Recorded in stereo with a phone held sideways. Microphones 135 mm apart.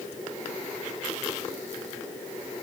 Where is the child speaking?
No child speaking in this recording.